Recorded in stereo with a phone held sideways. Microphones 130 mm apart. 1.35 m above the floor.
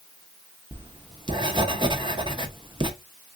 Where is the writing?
35° right (ahead or behind), 0.7 m.